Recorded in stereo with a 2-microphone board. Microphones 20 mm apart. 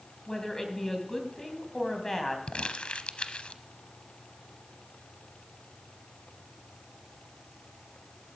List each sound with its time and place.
0.3 s a woman speaking: 25° left (ahead or behind), 3 m
2.5 s crumpling: 90° left, 0.8 m